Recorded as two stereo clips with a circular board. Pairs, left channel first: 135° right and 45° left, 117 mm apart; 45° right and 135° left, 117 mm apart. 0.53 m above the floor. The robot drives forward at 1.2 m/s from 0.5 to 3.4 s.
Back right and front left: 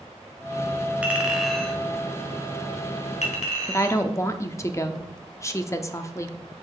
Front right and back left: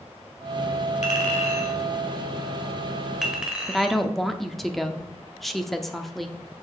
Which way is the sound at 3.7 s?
130° right.